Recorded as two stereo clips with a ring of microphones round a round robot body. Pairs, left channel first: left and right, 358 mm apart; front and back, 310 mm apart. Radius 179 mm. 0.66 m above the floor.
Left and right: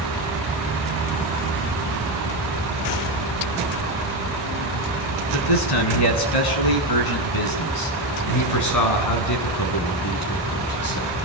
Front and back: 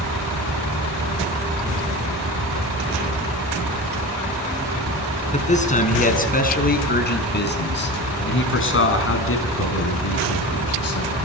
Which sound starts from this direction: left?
A man speaking, at 5.3 s.